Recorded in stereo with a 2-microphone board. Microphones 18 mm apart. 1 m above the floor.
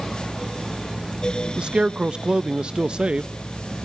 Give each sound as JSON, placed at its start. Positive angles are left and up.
{"t": 1.6, "sound": "a man speaking", "side_deg": -60, "distance_m": 0.6}